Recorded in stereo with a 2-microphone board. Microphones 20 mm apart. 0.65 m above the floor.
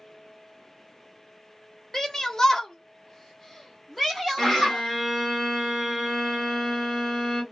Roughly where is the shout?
Left.